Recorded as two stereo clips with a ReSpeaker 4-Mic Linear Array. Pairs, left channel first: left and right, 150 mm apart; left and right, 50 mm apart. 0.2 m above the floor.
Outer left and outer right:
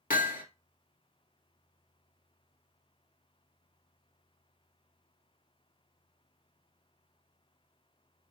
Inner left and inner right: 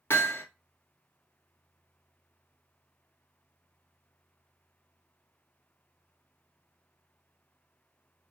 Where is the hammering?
65° left (ahead or behind), 1.2 m.